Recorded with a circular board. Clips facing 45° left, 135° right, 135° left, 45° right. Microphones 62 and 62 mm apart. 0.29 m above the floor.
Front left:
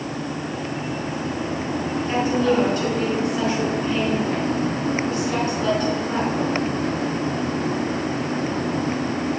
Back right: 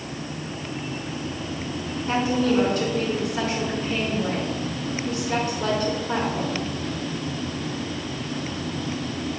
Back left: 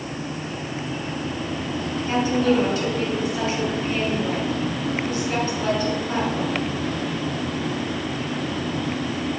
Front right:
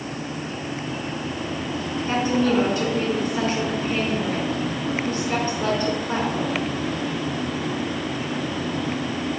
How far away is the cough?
No cough in this recording.